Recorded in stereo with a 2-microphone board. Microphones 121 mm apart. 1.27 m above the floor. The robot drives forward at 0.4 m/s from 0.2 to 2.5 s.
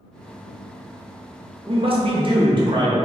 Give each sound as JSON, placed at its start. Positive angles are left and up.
{"t": 1.7, "sound": "a man speaking", "side_deg": -50, "distance_m": 0.5}